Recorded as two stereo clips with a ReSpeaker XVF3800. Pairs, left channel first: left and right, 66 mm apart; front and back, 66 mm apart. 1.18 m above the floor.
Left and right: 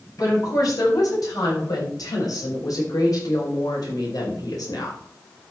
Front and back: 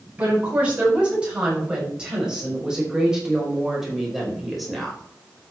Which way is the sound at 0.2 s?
110° left.